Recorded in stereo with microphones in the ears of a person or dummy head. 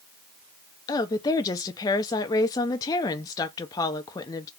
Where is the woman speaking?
20° left (ahead or behind), 0.6 m.